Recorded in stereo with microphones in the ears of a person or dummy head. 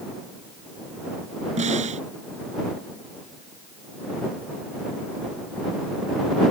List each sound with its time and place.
1.6 s a snare drum: 35° right (ahead or behind)